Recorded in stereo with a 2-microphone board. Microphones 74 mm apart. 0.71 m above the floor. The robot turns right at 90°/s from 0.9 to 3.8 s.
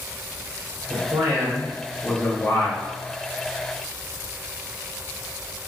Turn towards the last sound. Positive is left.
turn(degrees=180)